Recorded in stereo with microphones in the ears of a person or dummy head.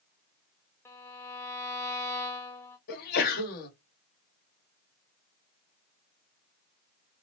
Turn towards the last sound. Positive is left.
turn(degrees=50)  # may be behind; listen again after turning